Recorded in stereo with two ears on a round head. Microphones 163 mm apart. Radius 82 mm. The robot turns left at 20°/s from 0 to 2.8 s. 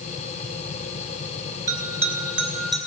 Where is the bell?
20° right (ahead or behind), 3 m; by 2.8 s centre (ahead or behind), 3 m.